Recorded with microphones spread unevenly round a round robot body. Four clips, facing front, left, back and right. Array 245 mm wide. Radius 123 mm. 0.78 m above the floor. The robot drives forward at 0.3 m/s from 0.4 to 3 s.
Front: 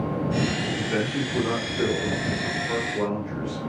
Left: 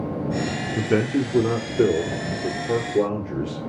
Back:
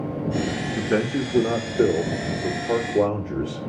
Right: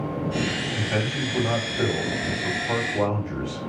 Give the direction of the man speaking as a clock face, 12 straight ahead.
8 o'clock.